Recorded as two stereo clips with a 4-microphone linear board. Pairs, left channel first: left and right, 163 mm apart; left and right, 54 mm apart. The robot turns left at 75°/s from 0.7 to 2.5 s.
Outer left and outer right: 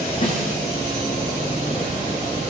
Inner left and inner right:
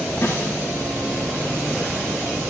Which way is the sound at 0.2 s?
45° left (ahead or behind).